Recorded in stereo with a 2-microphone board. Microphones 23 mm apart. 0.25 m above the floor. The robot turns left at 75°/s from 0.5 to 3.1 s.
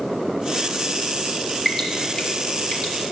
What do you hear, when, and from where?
1.6 s dripping: 5° left (ahead or behind), 1.0 m; by 3.1 s 50° left (ahead or behind), 1.0 m